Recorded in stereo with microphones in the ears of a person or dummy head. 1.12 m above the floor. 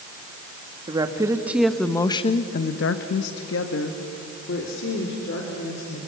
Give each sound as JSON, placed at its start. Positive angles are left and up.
{"t": 0.9, "sound": "a woman speaking", "side_deg": -20, "distance_m": 1.9}